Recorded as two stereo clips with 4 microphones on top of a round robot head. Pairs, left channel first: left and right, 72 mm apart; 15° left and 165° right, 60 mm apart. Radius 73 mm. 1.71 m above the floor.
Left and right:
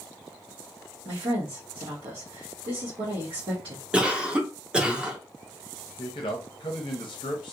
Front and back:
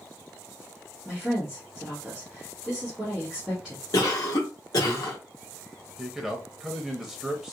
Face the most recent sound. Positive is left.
turn(degrees=115)